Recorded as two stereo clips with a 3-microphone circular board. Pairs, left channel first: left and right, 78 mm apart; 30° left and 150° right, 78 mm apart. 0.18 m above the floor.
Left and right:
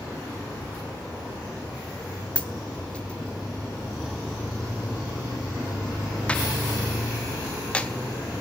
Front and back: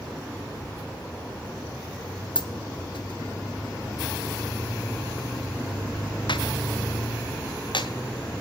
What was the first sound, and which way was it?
A dropped coin, 15° left.